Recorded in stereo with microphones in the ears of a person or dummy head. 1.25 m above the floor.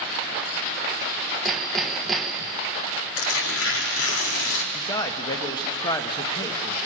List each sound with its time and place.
1.4 s hammering: centre (ahead or behind), 1.1 m
3.2 s tearing paper: 75° left (ahead or behind), 2 m
4.7 s a man speaking: 20° left (ahead or behind), 1.2 m